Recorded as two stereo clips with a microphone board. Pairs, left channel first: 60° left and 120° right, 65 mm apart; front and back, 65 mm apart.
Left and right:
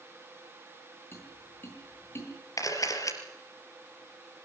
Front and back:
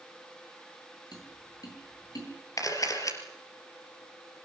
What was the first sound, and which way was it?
Tapping, 10° left.